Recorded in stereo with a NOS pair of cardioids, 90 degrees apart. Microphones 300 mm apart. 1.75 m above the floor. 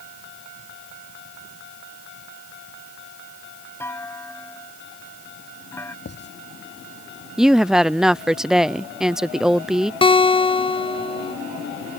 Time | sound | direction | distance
3.8 | a clunk | 10° left | ?
6.0 | writing | 35° left | ?
7.4 | a woman speaking | straight ahead | ?
10.0 | a guitar | 15° left | ?